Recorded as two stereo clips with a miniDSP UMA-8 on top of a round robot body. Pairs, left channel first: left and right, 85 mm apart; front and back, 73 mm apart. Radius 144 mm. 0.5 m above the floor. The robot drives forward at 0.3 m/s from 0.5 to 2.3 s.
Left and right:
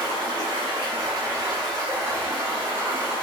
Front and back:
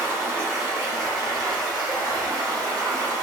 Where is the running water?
120° right, 0.8 m; by 3.2 s 145° right, 1.1 m.